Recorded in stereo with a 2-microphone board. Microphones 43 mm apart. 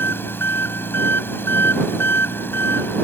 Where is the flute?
I don't hear a flute.